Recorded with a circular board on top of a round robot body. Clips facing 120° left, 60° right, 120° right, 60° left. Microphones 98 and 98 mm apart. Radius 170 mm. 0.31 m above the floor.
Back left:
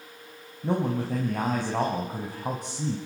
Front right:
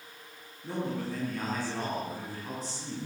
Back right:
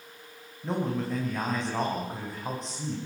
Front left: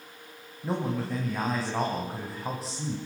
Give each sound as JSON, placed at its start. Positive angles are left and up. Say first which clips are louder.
{"t": 0.6, "sound": "a man speaking", "louder": "back left 7 dB, even", "azimuth_deg": 145, "distance_m": 4.0}